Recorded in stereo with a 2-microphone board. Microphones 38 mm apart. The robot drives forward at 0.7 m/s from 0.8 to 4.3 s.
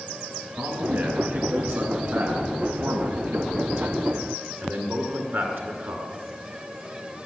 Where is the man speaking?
80° right, 7.5 m; by 6.1 s 75° right (ahead or behind), 7.5 m.